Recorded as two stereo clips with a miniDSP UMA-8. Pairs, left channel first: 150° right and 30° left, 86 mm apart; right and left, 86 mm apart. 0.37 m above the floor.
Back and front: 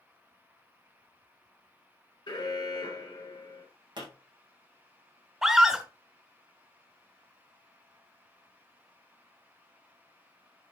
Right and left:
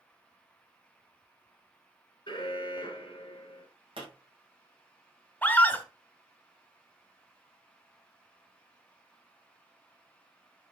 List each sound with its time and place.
2.3 s an alarm: 120° right, 3.5 m
4.0 s a pop: 65° left, 5.5 m
5.4 s a scream: 50° right, 1.1 m